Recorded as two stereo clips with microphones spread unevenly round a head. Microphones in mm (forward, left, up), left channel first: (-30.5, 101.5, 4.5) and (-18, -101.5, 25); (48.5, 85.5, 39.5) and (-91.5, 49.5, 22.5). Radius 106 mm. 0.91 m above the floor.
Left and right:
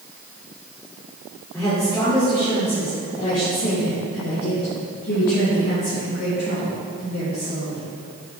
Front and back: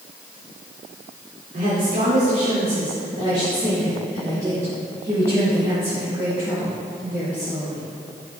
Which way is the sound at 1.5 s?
170° left.